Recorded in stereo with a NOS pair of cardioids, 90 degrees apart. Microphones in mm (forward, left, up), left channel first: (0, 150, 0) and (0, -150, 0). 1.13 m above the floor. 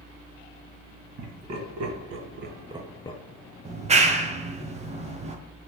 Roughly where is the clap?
Ahead.